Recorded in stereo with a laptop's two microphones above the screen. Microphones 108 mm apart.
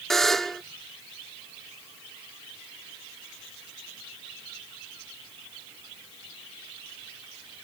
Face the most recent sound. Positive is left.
turn(degrees=5)  # may be behind; listen again after turning